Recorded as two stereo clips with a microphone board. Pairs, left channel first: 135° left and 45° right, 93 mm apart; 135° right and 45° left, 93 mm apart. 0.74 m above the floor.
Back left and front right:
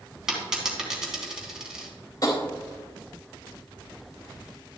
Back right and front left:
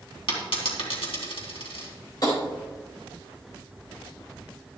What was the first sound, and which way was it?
A dropped coin, 130° right.